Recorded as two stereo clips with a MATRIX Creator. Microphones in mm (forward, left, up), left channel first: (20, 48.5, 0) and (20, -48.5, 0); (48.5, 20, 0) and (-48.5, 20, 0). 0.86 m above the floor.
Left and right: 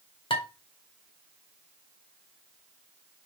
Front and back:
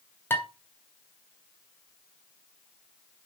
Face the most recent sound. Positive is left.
turn(degrees=65)